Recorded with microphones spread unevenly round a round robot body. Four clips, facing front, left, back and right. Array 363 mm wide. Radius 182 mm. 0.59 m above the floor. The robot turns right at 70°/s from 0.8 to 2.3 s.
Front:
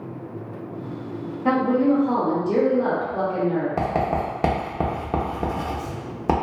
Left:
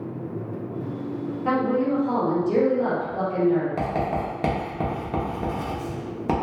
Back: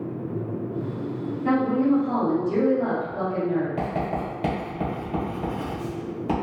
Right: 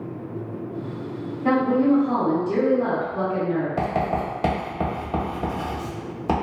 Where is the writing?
5° left, 0.8 m.